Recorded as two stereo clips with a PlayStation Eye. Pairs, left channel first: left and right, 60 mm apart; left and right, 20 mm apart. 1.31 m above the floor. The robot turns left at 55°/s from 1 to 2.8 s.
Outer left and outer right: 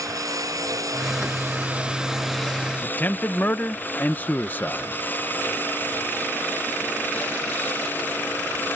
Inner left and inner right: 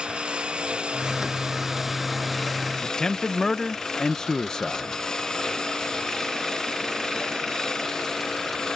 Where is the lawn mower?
115° right; by 8.8 s 145° left.